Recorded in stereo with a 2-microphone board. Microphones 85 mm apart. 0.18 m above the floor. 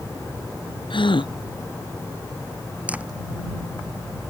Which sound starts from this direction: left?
A gasp, at 0.9 s.